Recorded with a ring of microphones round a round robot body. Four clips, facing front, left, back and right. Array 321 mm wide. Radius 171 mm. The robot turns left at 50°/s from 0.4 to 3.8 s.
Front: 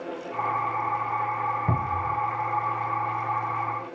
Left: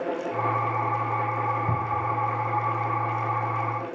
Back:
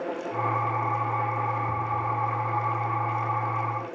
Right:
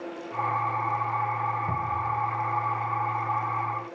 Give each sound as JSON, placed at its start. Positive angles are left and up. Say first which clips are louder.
{"t": 1.7, "sound": "a cupboard door", "louder": "left 2 dB, front 1 dB", "azimuth_deg": 10, "distance_m": 0.8}